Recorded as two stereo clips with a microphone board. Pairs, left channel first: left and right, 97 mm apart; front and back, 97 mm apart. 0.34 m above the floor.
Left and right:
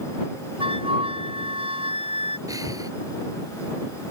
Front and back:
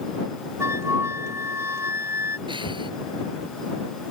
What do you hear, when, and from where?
0.6 s a flute: 115° right
2.5 s breathing: 145° right